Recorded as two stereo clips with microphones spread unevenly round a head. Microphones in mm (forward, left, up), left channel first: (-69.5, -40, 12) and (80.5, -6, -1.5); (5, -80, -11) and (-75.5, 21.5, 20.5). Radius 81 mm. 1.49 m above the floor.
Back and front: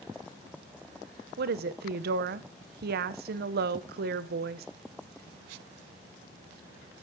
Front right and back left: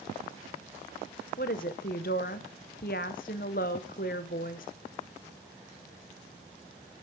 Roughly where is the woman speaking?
Ahead.